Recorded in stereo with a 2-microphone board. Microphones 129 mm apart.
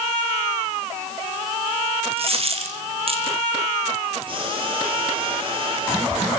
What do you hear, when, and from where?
2.2 s a dropped coin: 50° right (ahead or behind), 3 m
4.3 s boiling: 45° right (ahead or behind), 9.5 m